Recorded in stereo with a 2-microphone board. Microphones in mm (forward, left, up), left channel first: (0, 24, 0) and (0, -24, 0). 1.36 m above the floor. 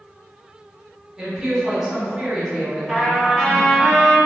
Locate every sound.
1.2 s a woman speaking: 15° right (ahead or behind), 1.2 m
2.9 s a trumpet: centre (ahead or behind), 1.7 m